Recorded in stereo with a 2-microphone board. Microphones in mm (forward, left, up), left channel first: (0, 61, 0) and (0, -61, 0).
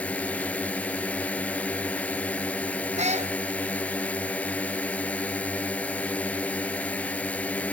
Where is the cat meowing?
65° right (ahead or behind).